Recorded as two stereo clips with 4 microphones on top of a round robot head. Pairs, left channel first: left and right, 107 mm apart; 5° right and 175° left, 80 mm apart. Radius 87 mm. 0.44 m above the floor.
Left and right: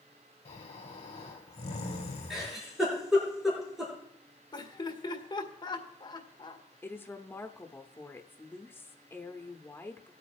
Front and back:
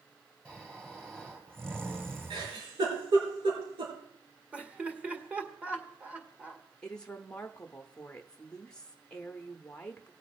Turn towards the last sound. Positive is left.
turn(degrees=55)